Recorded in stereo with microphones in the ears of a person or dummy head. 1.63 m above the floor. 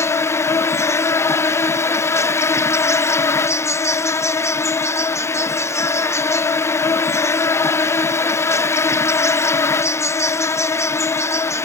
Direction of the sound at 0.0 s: 15° left (ahead or behind).